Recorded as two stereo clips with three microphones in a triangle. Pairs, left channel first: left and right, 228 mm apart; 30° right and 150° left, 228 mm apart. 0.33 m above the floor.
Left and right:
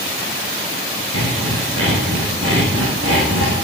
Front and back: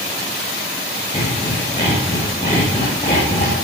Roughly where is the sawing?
Right.